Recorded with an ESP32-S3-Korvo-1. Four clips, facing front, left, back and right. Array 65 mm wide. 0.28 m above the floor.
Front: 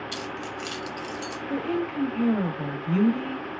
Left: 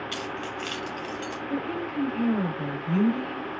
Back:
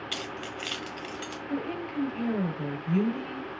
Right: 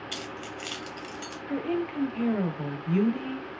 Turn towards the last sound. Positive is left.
turn(degrees=-45)